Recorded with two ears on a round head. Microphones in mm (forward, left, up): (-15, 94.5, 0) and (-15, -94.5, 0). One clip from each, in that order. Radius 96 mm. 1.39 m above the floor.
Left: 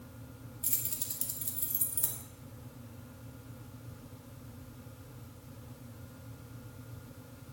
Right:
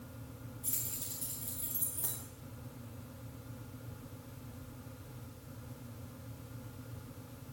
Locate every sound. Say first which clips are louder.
0.6 s keys jangling: left 3 dB; 65° left (ahead or behind), 2 m